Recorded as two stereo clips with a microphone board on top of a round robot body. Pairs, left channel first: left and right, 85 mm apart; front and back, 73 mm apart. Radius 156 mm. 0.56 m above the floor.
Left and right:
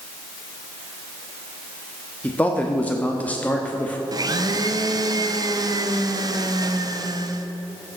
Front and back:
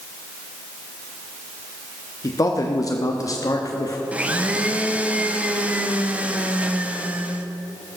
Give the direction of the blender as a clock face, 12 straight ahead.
4 o'clock.